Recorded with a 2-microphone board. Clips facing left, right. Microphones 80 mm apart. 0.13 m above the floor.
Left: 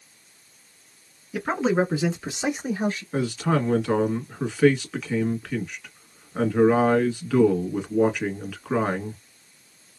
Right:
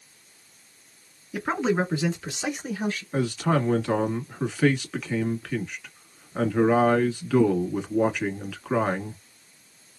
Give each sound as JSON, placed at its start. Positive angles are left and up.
{"t": 1.3, "sound": "a man speaking", "side_deg": 0, "distance_m": 1.1}
{"t": 3.1, "sound": "a man speaking", "side_deg": 0, "distance_m": 1.2}